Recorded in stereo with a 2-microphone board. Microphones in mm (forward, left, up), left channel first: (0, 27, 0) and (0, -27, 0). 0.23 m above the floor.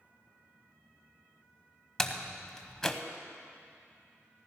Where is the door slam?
10° left (ahead or behind), 0.8 m.